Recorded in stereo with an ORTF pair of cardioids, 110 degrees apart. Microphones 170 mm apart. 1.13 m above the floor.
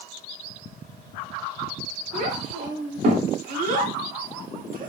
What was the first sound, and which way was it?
A child speaking, 50° right.